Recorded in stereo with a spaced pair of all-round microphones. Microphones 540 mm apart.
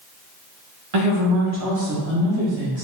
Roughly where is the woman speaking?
Right.